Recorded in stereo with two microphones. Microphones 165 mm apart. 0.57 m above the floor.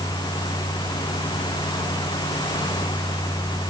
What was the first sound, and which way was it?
Only background noise.